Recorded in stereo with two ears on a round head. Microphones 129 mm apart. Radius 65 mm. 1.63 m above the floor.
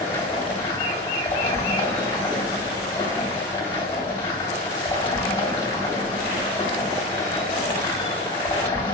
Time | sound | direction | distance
0.0 | running water | 25° left (ahead or behind) | 3 m